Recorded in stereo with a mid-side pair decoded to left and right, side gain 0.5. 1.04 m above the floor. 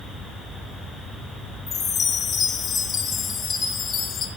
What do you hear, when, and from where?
1.7 s a chime: 60° left, 4 m